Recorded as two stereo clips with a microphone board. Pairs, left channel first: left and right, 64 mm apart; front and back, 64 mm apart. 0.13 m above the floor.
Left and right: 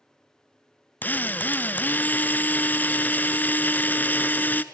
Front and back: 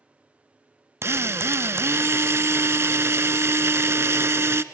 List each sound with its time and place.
1.0 s a drill: 145° left, 0.6 m